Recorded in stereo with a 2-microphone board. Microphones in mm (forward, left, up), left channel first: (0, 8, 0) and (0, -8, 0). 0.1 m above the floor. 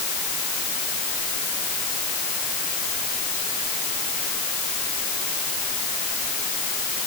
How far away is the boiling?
No boiling in this recording.